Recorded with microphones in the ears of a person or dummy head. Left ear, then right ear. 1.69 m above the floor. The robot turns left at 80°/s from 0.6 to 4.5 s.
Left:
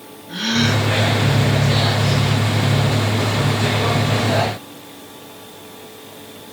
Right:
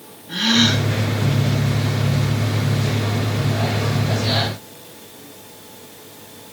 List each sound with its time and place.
0.3 s a gasp: 5° right (ahead or behind), 3.5 m; by 0.9 s 25° right (ahead or behind), 3.5 m